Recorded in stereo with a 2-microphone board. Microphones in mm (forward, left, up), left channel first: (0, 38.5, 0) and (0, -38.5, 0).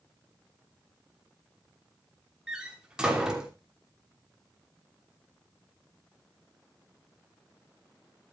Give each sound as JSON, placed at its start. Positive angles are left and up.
{"t": 2.5, "sound": "a door slam", "side_deg": -10, "distance_m": 3.0}